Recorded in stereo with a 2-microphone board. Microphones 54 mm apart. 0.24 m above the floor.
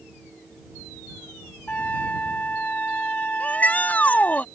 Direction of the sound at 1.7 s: 30° left (ahead or behind).